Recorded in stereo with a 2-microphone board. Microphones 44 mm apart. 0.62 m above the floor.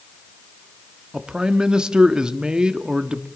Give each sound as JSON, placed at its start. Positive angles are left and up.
{"t": 1.1, "sound": "a man speaking", "side_deg": -20, "distance_m": 0.8}